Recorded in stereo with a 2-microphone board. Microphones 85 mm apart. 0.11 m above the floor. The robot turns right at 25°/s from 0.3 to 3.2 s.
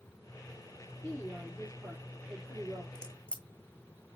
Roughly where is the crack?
Centre.